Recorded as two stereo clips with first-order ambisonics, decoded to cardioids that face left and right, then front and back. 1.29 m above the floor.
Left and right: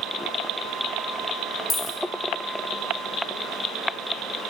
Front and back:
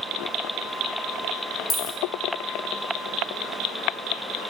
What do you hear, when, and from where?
1.7 s a dropped coin: 30° left, 0.6 m